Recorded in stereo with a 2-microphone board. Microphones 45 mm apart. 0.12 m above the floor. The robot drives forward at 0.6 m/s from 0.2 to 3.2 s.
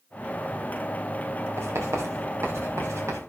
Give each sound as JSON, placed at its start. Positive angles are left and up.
{"t": 1.6, "sound": "writing", "side_deg": -85, "distance_m": 5.5}